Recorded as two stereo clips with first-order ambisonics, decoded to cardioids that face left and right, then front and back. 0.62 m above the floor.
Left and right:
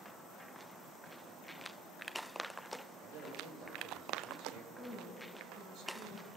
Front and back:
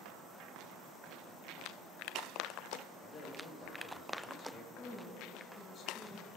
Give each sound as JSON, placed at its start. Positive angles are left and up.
{"t": 3.0, "sound": "a man speaking", "azimuth_deg": -70, "distance_m": 2.5}
{"t": 4.8, "sound": "a woman speaking", "azimuth_deg": -55, "distance_m": 2.0}